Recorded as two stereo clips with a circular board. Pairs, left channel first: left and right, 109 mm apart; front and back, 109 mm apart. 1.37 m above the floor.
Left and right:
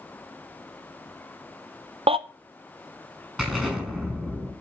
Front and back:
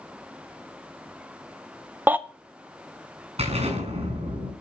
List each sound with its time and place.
2.1 s a baby crying: 110° right, 0.6 m
3.4 s an explosion: 170° right, 5 m